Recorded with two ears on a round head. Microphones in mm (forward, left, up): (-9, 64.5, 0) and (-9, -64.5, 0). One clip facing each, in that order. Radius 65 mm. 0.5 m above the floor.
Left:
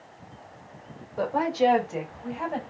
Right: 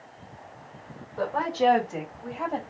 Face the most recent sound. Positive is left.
turn(degrees=5)  # may be behind; listen again after turning